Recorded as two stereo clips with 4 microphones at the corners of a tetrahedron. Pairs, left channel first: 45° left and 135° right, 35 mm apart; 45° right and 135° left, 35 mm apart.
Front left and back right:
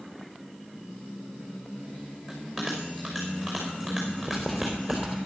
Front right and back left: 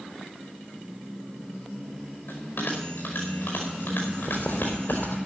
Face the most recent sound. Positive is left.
turn(degrees=-40)